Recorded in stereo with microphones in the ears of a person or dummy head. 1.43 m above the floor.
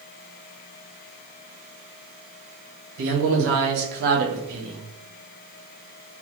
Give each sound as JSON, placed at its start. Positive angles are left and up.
{"t": 3.0, "sound": "a man speaking", "side_deg": -75, "distance_m": 1.1}